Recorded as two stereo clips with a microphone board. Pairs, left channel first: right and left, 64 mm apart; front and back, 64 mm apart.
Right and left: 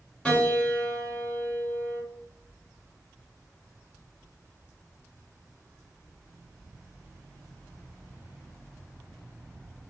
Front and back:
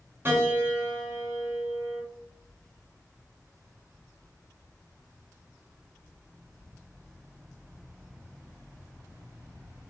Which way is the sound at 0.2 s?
150° right.